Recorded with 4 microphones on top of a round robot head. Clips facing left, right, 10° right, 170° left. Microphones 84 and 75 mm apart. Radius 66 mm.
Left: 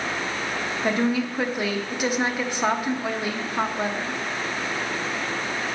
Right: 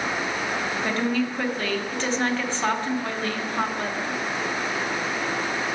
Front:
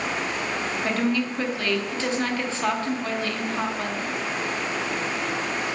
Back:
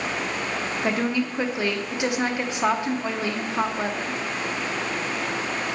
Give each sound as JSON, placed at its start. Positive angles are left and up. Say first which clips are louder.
{"t": 0.8, "sound": "a woman speaking", "louder": "left 3 dB, even", "azimuth_deg": 145, "distance_m": 0.7}